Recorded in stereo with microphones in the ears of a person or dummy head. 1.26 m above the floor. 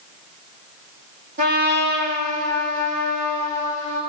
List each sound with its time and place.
1.4 s a trumpet: 40° right (ahead or behind), 1.0 m